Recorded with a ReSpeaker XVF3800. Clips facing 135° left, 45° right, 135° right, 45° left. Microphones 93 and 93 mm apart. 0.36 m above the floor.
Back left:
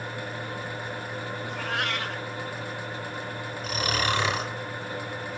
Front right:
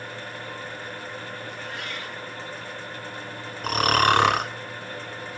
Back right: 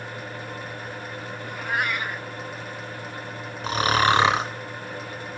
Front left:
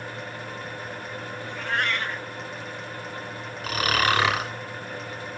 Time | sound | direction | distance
1.4 | a cat meowing | 145° left | 0.7 m
3.6 | snoring | 70° right | 2 m